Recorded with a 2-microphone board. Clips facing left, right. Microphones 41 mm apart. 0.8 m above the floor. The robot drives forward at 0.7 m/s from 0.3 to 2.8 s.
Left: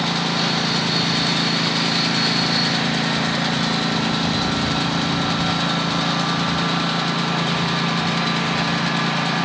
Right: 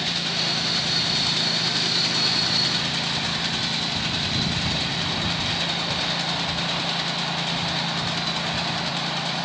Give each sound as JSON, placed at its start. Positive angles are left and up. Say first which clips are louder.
{"t": 0.0, "sound": "a lawn mower", "louder": "left 5 dB", "side_deg": 85}